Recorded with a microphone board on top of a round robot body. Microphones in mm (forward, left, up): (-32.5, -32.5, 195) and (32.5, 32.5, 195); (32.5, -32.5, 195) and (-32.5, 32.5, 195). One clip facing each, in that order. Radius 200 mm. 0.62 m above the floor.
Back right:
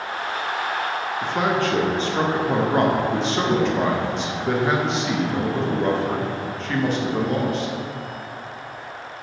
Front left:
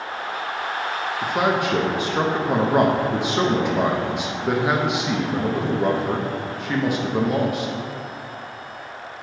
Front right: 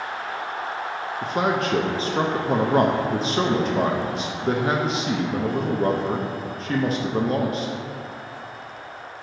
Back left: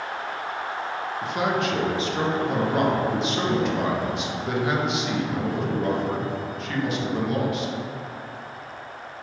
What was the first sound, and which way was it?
A man speaking, 30° right.